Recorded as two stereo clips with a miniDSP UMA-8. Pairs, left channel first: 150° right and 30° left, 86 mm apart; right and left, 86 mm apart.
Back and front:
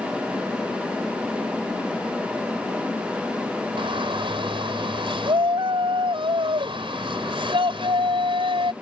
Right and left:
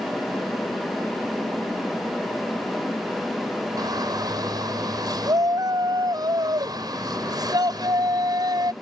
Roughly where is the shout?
Ahead left.